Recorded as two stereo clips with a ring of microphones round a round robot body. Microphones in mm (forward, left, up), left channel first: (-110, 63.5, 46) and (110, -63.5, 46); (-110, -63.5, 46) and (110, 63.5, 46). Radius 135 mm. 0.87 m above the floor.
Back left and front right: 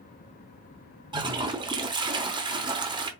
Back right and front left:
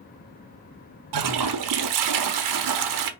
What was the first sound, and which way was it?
A toilet flushing, 45° left.